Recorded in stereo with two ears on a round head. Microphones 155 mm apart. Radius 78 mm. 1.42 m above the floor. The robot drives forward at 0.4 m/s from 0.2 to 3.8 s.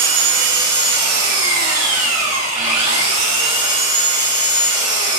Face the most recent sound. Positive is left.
turn(degrees=-30)  # may be behind; listen again after turning